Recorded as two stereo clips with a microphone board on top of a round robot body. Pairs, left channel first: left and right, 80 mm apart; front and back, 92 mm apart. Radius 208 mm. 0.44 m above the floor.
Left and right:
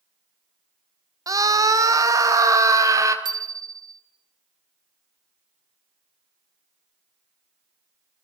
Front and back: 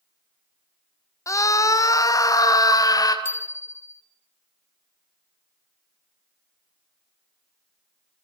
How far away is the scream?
About 3 m.